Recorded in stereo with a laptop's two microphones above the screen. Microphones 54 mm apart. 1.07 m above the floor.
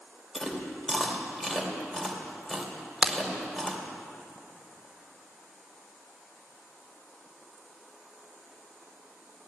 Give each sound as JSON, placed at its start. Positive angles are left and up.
{"t": 0.3, "sound": "chewing", "side_deg": 5, "distance_m": 2.5}
{"t": 3.0, "sound": "a crack", "side_deg": -15, "distance_m": 0.7}